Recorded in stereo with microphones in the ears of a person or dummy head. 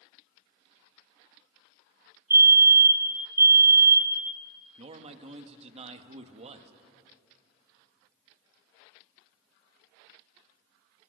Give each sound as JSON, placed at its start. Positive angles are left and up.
{"t": 2.3, "sound": "a fire alarm", "side_deg": -10, "distance_m": 1.1}
{"t": 4.8, "sound": "a man speaking", "side_deg": -35, "distance_m": 1.3}